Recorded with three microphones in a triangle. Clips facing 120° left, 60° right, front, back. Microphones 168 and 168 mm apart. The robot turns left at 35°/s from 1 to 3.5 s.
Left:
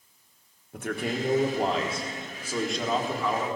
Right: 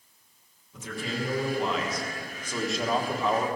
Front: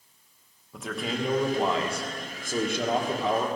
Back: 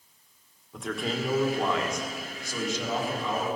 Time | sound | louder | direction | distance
0.7 | a man speaking | left 4 dB, even | 90° left | 1.3 m